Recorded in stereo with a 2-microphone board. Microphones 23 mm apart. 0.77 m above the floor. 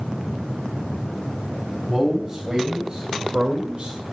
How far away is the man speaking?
About 4 m.